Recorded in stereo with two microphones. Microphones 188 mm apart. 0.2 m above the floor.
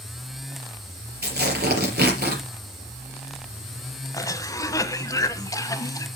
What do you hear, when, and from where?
1.2 s tearing paper: 60° right (ahead or behind), 4 m
4.1 s a cough: 20° left (ahead or behind), 1.1 m